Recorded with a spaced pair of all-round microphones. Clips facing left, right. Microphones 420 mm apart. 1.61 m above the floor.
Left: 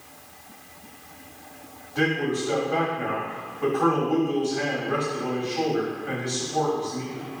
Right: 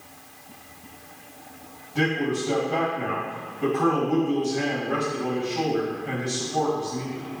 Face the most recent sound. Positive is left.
turn(degrees=-40)  # may be behind; listen again after turning